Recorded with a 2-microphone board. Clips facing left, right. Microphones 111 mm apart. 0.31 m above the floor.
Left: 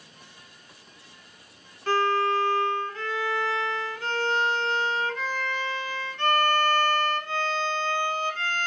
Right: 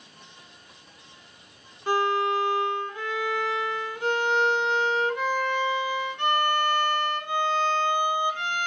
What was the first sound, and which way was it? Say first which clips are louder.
A violin: even; 15° right (ahead or behind).